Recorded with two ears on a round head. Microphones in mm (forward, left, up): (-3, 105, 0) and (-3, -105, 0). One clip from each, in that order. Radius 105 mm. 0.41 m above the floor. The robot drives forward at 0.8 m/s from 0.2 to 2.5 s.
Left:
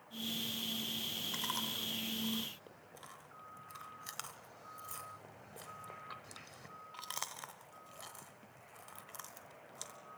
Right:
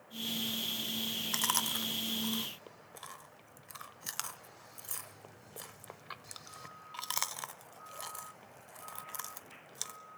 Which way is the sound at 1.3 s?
35° right (ahead or behind).